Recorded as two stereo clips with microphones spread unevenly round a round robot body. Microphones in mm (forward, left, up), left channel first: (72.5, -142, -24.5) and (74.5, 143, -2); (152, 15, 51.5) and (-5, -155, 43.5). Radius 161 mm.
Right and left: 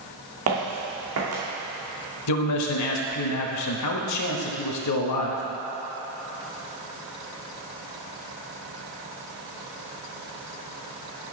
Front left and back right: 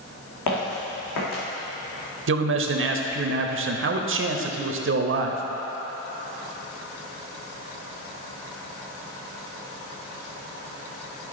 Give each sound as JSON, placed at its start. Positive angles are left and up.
{"t": 0.5, "sound": "footsteps", "azimuth_deg": 60, "distance_m": 2.5}
{"t": 2.3, "sound": "a man speaking", "azimuth_deg": -110, "distance_m": 1.0}